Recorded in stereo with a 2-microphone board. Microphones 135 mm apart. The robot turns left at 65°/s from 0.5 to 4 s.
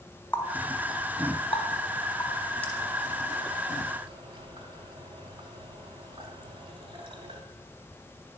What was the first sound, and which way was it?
A running tap, 15° left (ahead or behind).